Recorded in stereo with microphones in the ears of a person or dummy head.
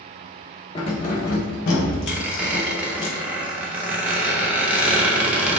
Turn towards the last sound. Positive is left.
turn(degrees=-10)  # may be behind; listen again after turning